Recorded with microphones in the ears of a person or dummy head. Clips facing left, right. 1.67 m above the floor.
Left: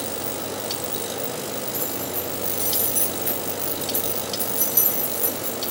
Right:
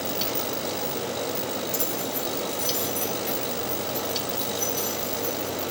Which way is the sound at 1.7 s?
30° right (ahead or behind).